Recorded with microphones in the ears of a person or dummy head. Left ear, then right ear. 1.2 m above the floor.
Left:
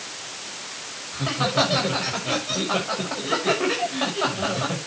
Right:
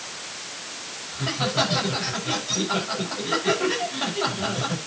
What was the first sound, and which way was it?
Laughter, 10° left (ahead or behind).